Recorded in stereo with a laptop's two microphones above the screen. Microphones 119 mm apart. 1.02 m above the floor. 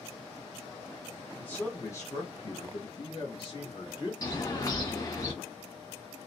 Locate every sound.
1.4 s a man speaking: 10° left (ahead or behind), 0.9 m; by 4.1 s 40° left (ahead or behind), 1.3 m
4.2 s a bird: 35° left (ahead or behind), 1.4 m